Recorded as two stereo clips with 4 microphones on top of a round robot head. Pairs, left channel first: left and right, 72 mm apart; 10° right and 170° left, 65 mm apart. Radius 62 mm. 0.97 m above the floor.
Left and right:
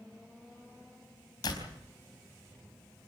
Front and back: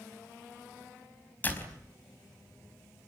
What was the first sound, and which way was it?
A door slam, 50° left.